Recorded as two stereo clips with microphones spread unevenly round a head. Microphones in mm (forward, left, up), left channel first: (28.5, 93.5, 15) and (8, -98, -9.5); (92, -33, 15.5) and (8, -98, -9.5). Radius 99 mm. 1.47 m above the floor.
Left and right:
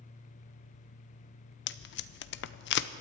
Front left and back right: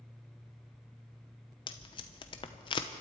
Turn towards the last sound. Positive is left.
turn(degrees=75)